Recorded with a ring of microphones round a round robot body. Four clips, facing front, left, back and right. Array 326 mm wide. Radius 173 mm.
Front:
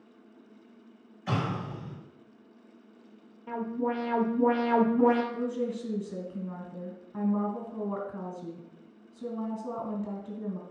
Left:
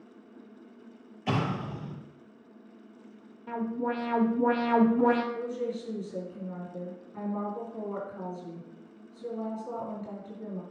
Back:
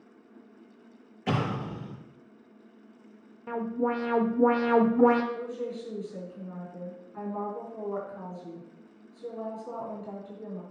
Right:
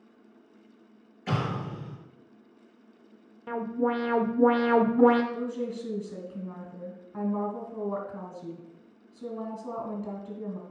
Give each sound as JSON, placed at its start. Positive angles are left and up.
{"t": 1.3, "sound": "an explosion", "azimuth_deg": 170, "distance_m": 3.5}
{"t": 3.5, "sound": "an alarm", "azimuth_deg": -130, "distance_m": 1.0}
{"t": 5.3, "sound": "a woman speaking", "azimuth_deg": -40, "distance_m": 3.0}